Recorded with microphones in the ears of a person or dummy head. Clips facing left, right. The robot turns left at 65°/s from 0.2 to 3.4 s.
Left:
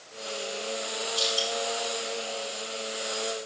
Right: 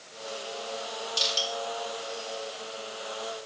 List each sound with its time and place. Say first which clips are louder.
1.2 s crushing: left 4 dB; 50° right (ahead or behind), 4.5 m; by 1.5 s 70° right (ahead or behind), 4.5 m